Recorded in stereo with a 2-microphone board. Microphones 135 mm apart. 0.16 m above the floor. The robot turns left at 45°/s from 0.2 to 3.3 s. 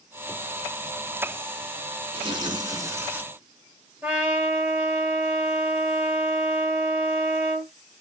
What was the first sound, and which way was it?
Tearing paper, 115° right.